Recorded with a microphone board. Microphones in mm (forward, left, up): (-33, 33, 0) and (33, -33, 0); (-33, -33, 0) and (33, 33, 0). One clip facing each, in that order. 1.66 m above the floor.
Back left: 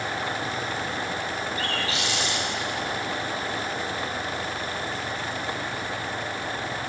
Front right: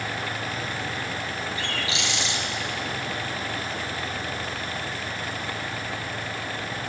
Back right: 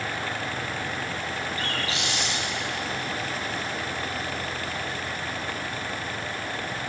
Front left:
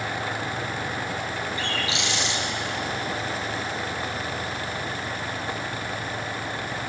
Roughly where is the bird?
Behind.